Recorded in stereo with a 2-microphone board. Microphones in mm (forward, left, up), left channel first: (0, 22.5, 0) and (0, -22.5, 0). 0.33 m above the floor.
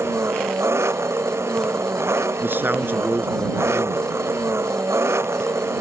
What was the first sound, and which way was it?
An engine running, 70° right (ahead or behind).